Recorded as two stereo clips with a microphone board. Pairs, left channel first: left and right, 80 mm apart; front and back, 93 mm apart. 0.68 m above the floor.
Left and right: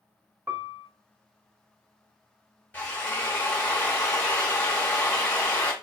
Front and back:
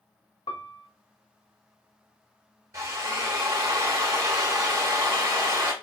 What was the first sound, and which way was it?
A piano, 25° right.